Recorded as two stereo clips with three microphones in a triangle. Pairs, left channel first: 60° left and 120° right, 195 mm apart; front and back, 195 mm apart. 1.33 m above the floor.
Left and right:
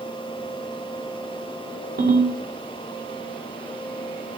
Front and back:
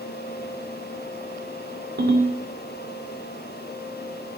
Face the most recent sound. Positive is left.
turn(degrees=-155)